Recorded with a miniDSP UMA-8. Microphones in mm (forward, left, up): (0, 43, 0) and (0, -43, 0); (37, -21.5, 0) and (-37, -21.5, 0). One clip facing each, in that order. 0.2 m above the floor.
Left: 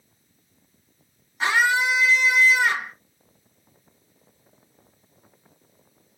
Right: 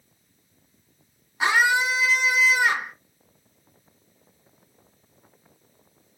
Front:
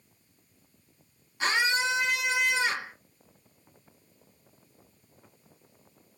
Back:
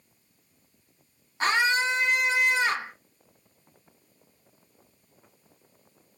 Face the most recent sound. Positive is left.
turn(degrees=-160)